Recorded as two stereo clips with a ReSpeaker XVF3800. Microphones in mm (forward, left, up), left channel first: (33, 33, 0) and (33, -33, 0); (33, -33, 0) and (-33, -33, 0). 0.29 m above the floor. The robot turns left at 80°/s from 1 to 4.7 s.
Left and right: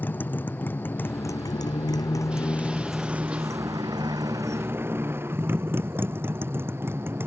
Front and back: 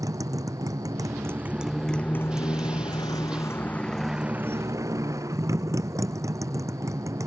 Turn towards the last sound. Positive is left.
turn(degrees=-145)